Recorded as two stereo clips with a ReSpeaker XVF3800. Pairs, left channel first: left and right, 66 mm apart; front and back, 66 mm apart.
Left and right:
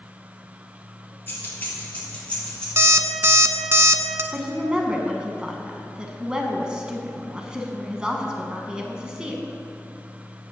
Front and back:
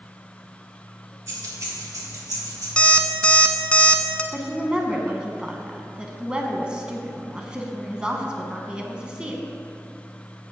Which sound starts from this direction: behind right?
A woman speaking, at 4.3 s.